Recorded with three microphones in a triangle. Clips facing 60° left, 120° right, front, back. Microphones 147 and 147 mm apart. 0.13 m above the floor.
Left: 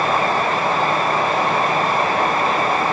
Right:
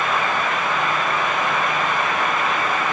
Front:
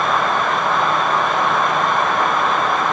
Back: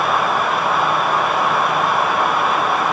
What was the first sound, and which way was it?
Only background noise.